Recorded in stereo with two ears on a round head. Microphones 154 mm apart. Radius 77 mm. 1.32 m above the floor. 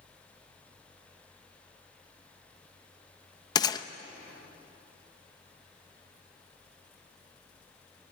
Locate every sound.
3.5 s a gunshot: 25° left (ahead or behind), 0.8 m